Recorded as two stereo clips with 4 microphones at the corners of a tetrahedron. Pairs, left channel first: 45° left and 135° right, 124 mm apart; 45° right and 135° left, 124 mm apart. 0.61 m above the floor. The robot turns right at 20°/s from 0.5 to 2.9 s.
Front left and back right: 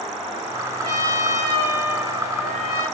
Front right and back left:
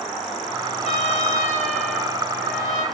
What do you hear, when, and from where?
0.8 s a trumpet: 80° right, 1.9 m; by 2.8 s 40° right, 1.9 m